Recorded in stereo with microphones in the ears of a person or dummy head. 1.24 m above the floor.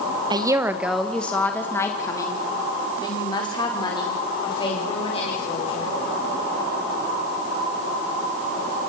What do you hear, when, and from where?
0.3 s a woman speaking: 25° right (ahead or behind), 1.2 m; by 5.9 s 30° left (ahead or behind), 7 m